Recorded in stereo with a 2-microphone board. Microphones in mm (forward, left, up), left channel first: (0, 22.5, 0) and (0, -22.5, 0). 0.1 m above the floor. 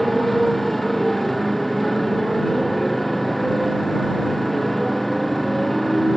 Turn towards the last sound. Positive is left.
turn(degrees=5)  # may be behind; listen again after turning